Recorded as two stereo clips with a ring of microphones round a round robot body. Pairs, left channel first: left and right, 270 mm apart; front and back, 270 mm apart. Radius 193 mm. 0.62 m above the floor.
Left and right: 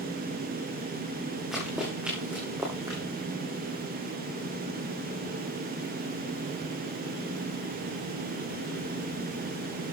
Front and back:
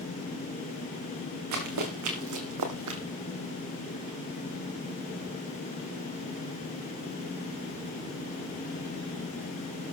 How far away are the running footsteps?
About 3 m.